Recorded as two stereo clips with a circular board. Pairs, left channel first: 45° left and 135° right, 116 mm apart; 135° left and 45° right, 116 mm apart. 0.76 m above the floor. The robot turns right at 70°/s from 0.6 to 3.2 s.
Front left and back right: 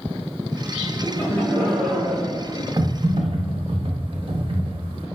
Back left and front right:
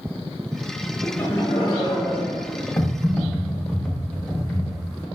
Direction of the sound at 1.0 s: 70° left.